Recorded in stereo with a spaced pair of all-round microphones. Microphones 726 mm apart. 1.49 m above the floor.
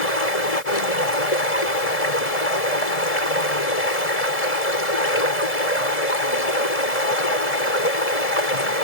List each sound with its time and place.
0.0 s running water: 55° left (ahead or behind)